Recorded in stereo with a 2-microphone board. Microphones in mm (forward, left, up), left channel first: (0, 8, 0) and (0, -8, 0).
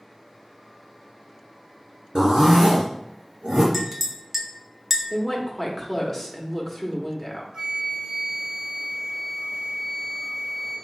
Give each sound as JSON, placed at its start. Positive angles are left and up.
{"t": 2.1, "sound": "a zipper", "side_deg": -70, "distance_m": 2.0}
{"t": 3.7, "sound": "a clink", "side_deg": -20, "distance_m": 0.7}
{"t": 5.1, "sound": "a woman speaking", "side_deg": 10, "distance_m": 1.0}
{"t": 7.5, "sound": "a flute", "side_deg": -50, "distance_m": 2.0}